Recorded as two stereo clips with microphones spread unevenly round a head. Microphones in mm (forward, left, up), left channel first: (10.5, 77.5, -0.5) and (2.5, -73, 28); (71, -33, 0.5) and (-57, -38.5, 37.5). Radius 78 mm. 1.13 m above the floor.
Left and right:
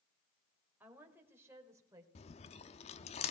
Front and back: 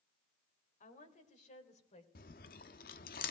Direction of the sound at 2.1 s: 35° left.